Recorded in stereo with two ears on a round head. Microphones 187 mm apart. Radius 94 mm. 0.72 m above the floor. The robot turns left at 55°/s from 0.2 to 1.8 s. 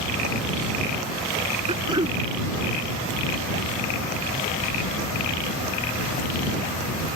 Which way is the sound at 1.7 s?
30° right (ahead or behind).